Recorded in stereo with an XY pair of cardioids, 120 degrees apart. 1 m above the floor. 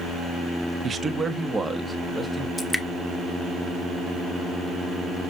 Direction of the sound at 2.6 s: 5° left.